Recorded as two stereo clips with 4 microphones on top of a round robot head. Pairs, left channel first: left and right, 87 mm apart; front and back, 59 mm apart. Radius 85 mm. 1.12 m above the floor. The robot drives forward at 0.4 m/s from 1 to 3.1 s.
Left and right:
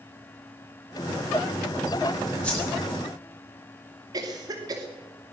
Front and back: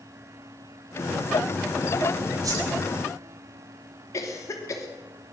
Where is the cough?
40° right, 2.5 m.